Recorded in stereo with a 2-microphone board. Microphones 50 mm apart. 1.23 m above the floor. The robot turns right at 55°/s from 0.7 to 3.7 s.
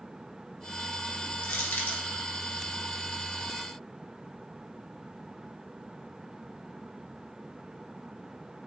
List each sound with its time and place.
1.4 s crushing: 65° left (ahead or behind), 1.9 m; by 2.0 s 35° left (ahead or behind), 1.9 m